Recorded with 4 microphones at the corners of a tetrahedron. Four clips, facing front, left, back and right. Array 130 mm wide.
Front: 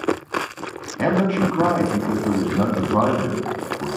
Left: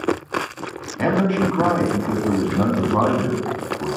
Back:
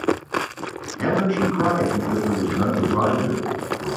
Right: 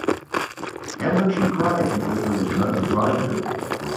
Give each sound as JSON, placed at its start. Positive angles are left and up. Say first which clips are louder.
{"t": 1.0, "sound": "a man speaking", "louder": "left 1 dB, front 1 dB", "azimuth_deg": 45, "distance_m": 2.0}